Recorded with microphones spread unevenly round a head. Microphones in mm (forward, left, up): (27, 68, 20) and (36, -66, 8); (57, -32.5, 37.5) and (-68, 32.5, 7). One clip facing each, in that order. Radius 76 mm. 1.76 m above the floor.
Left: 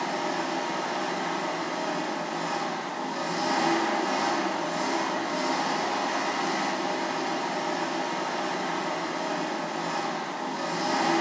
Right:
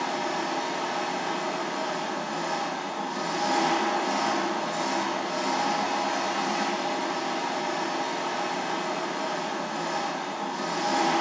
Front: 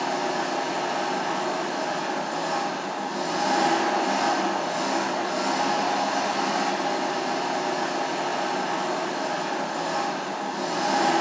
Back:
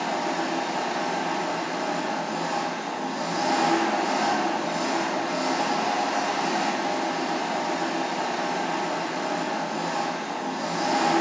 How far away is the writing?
No writing in this recording.